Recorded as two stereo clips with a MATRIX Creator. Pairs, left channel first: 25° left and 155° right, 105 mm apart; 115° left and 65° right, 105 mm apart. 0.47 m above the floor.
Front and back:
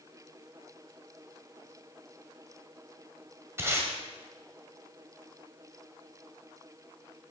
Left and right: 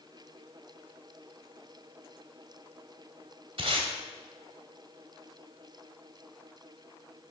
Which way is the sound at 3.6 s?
90° right.